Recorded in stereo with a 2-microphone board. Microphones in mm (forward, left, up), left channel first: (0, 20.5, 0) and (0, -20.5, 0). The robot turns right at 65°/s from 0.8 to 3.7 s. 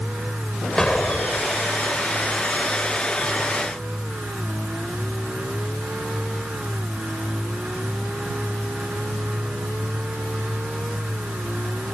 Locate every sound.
0.8 s an explosion: 15° left; by 1.6 s 70° left